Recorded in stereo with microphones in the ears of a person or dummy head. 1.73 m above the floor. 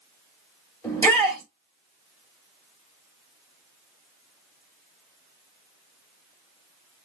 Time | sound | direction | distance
0.8 | a shout | 15° left (ahead or behind) | 2.5 m